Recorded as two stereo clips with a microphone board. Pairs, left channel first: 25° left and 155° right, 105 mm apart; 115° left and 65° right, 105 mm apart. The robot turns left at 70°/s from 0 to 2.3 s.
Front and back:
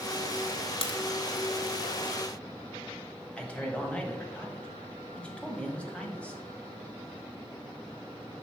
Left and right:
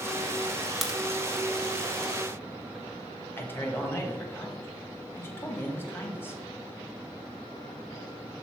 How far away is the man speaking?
About 1.0 m.